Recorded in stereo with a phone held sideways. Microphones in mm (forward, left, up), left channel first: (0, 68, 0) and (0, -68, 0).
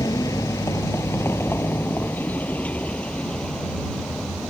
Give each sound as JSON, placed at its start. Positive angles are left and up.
{"t": 0.0, "sound": "a vehicle", "side_deg": 25}